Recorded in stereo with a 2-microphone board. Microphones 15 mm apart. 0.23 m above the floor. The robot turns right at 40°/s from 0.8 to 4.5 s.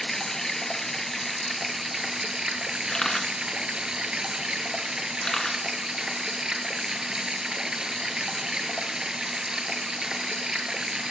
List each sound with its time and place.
0.0 s running water: 160° left, 0.8 m; by 11.1 s 55° right, 0.8 m
2.9 s a camera shutter: 60° left (ahead or behind), 1.3 m; by 5.6 s 40° left (ahead or behind), 1.3 m